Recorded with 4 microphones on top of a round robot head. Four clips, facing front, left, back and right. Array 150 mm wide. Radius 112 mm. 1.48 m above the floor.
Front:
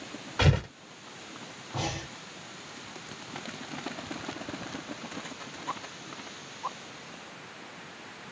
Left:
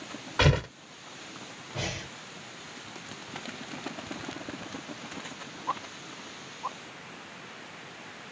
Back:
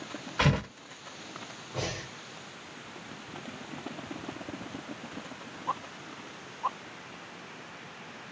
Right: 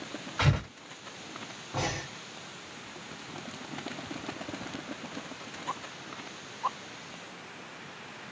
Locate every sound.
0.4 s tearing paper: 75° left, 1.5 m
1.7 s breathing: 50° right, 2.5 m